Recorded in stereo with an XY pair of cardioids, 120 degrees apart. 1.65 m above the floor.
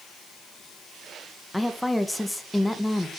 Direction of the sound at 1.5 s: 5° left.